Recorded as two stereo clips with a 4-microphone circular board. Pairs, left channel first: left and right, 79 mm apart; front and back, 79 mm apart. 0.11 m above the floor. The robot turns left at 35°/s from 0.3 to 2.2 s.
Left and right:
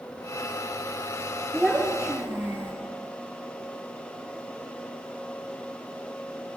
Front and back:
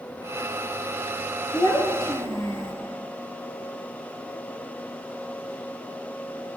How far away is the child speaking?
About 1.0 m.